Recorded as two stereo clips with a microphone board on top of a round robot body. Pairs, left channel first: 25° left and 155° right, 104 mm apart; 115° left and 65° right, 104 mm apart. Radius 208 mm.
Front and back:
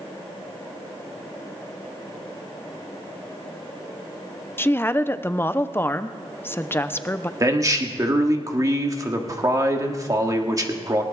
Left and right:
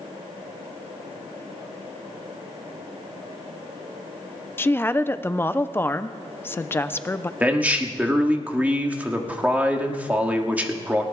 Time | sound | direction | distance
4.6 | a woman speaking | 65° left | 0.8 m
7.4 | a man speaking | 135° right | 1.6 m